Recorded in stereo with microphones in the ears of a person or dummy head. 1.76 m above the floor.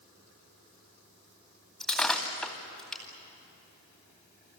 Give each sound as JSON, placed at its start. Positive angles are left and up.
{"t": 1.8, "sound": "breaking glass", "side_deg": 5, "distance_m": 2.5}